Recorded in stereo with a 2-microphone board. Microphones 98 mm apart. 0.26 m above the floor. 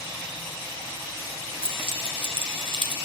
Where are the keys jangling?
70° right (ahead or behind), 3 m; by 3.0 s 50° right (ahead or behind), 1.4 m.